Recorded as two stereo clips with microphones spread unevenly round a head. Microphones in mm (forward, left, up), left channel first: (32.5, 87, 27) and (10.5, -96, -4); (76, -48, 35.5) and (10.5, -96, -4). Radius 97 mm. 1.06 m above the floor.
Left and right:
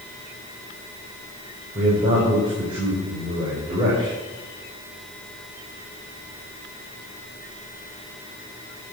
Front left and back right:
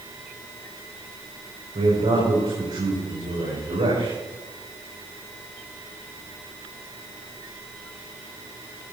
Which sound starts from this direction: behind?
A man speaking, at 1.8 s.